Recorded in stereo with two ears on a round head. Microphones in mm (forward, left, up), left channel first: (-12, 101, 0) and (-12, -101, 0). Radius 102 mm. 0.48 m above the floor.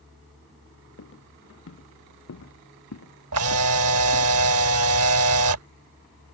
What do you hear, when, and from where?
1.0 s footsteps: 65° left (ahead or behind); by 4.3 s 85° left
3.3 s a camera shutter: 75° right (ahead or behind)